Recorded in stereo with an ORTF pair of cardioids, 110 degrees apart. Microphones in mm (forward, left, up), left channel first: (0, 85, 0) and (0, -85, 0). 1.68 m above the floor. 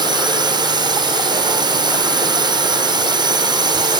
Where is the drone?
25° right.